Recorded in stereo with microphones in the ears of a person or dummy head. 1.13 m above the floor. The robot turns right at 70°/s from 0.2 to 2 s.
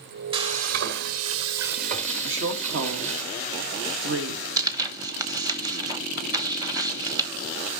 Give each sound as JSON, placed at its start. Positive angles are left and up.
{"t": 0.3, "sound": "frying", "azimuth_deg": -155, "distance_m": 1.5}
{"t": 2.2, "sound": "a woman speaking", "side_deg": -65, "distance_m": 1.9}
{"t": 4.6, "sound": "tearing paper", "side_deg": -15, "distance_m": 1.1}